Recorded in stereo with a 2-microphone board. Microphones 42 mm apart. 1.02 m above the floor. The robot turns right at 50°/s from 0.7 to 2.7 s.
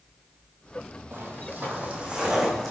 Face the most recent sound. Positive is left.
turn(degrees=5)  # may be behind; listen again after turning